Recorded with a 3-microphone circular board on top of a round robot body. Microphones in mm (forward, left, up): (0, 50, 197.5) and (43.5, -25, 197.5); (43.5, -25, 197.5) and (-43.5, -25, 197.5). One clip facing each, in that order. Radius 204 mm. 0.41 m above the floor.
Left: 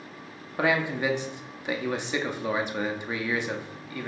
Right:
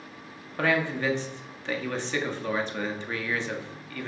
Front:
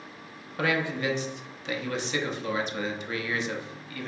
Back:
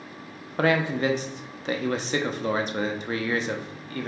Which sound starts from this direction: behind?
A man speaking, at 0.6 s.